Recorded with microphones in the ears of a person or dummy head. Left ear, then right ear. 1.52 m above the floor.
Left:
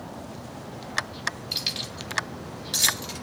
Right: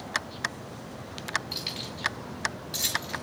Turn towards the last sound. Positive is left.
turn(degrees=60)  # may be behind; listen again after turning